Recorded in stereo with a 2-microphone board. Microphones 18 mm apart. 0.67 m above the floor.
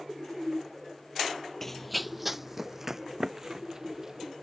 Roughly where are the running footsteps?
Centre.